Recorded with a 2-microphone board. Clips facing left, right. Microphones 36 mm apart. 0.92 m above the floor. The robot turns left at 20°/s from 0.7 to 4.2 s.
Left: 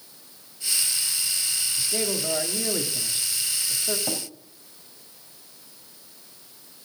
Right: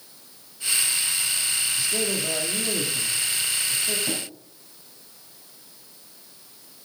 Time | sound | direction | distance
1.8 | a man speaking | 165° left | 2 m
4.1 | tapping | 65° left (ahead or behind) | 4 m